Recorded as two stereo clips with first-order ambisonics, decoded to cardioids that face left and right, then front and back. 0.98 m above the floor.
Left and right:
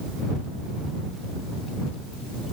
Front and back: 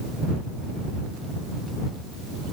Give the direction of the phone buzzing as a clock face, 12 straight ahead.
I don't hear a phone buzzing.